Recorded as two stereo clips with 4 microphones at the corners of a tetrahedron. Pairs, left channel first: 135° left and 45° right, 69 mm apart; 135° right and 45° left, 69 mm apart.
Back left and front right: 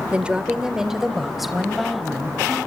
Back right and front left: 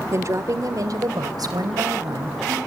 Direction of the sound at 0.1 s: 20° left.